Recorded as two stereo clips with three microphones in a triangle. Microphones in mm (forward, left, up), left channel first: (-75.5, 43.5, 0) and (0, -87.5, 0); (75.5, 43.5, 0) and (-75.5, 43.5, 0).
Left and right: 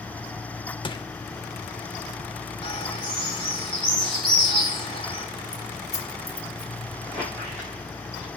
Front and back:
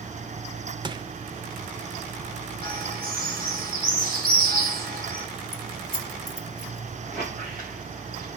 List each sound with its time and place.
0.8 s crushing: 145° left, 0.8 m
2.6 s a bird: 175° left, 4 m
5.5 s keys jangling: 20° right, 1.5 m
7.0 s a squeak: 150° right, 9 m